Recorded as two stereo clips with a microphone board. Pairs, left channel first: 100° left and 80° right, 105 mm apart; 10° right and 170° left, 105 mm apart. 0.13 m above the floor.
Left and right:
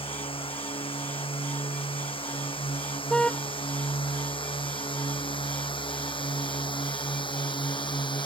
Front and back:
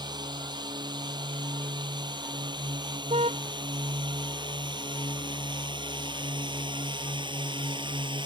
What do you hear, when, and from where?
0.0 s a drone: 125° left; by 8.3 s 135° left
3.1 s a car horn: 175° right